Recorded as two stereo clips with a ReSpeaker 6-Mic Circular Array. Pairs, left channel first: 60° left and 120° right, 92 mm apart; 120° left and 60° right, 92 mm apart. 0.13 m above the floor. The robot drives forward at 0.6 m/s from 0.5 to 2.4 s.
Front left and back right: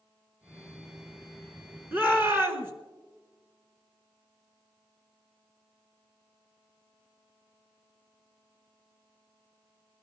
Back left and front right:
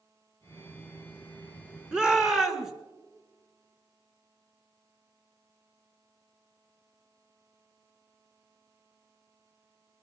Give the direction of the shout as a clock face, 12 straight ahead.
4 o'clock.